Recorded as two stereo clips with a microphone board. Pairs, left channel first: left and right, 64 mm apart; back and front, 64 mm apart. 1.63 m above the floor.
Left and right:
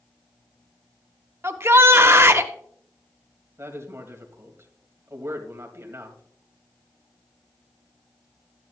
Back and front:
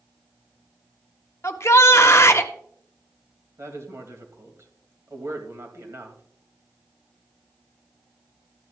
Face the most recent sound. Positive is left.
turn(degrees=-45)